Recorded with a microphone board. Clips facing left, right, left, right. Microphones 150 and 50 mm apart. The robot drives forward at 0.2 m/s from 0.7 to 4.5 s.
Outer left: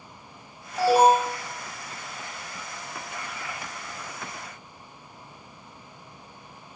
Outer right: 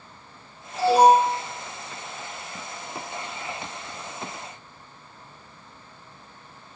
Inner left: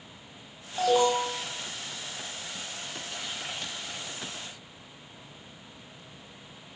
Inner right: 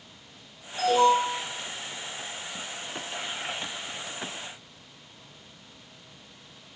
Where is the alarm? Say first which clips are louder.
Outer right 2 dB, inner right 3 dB; 50° left (ahead or behind), 1.3 m.